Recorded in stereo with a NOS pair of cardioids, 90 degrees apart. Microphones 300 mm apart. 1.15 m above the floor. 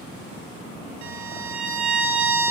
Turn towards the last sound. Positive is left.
turn(degrees=-65)